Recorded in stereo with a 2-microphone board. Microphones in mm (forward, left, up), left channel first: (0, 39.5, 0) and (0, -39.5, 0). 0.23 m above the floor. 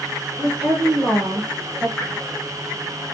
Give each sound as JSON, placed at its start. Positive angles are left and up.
{"t": 0.4, "sound": "a woman speaking", "side_deg": -10, "distance_m": 3.5}
{"t": 2.0, "sound": "dripping", "side_deg": 5, "distance_m": 3.0}